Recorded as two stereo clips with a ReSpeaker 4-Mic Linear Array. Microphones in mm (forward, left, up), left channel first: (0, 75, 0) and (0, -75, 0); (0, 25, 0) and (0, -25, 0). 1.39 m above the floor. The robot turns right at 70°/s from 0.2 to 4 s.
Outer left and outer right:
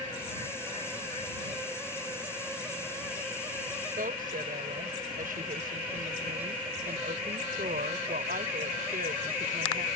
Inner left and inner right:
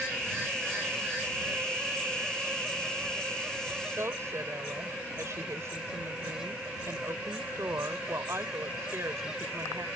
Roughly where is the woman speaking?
Right.